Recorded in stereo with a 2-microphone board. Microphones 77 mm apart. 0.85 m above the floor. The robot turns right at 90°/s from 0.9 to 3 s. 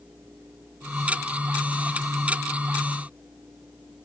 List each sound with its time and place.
Only background noise.